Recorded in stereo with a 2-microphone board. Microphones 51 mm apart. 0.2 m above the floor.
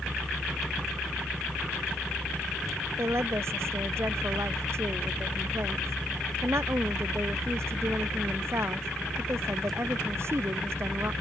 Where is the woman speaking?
55° right (ahead or behind).